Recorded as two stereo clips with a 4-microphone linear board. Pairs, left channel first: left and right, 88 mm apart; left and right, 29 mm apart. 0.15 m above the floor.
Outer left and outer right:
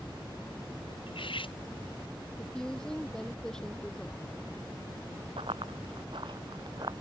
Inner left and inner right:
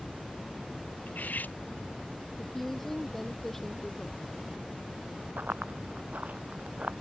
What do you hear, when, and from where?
1.1 s cutlery clinking: 75° left (ahead or behind)
2.4 s a woman speaking: 10° left (ahead or behind)
5.4 s running footsteps: 85° right; by 6.9 s 50° right (ahead or behind)